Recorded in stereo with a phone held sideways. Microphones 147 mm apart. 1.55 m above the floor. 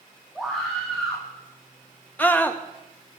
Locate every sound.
0.3 s a scream: centre (ahead or behind), 2.0 m
2.2 s a scream: 10° left (ahead or behind), 1.2 m